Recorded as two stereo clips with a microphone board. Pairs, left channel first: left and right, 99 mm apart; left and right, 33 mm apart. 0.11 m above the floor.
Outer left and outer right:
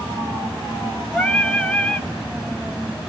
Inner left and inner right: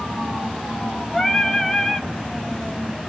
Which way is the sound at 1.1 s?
10° left (ahead or behind).